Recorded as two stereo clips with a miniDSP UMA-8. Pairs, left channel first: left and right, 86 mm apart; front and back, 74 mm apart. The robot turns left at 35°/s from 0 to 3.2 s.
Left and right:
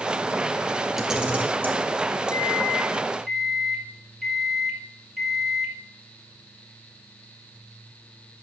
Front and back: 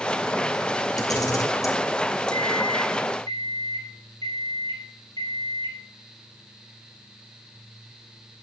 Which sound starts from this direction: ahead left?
A microwave, at 2.3 s.